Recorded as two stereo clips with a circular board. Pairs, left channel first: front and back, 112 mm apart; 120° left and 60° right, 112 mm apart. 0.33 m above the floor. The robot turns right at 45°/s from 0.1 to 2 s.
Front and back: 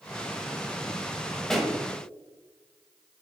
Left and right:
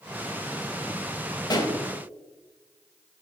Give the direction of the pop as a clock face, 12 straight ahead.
9 o'clock.